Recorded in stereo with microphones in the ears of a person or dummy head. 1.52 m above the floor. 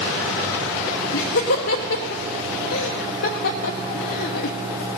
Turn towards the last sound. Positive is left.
turn(degrees=55)  # may be behind; listen again after turning